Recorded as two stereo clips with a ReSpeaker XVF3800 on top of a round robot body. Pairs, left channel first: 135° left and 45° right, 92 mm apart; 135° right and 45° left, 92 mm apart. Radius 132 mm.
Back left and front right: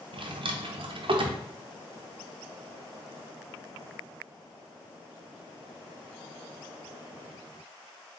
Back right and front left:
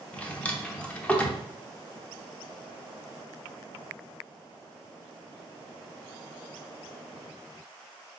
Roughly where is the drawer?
Ahead right.